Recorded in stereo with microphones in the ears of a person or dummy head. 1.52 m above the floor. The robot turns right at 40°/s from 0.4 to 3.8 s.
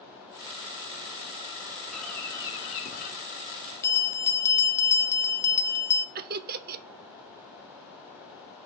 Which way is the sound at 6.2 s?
45° right (ahead or behind).